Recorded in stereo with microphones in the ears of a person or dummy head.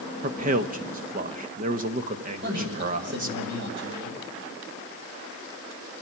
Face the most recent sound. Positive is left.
turn(degrees=-55)  # may be behind; listen again after turning